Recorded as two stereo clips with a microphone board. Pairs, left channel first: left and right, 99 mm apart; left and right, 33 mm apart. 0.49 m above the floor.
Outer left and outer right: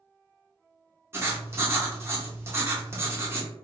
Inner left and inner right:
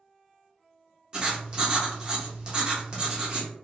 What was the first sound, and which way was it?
Writing, 25° right (ahead or behind).